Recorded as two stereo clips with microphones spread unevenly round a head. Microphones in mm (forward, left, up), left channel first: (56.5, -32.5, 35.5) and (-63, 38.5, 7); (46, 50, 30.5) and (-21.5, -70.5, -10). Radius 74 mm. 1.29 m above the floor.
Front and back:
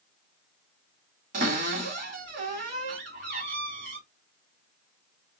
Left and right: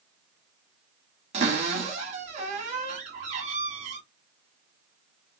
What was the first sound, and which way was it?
A cupboard door, 170° right.